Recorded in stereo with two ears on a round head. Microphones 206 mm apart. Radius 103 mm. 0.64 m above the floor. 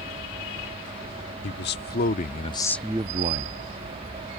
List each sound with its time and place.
1.4 s a man speaking: 50° left (ahead or behind); by 4.4 s 55° right (ahead or behind)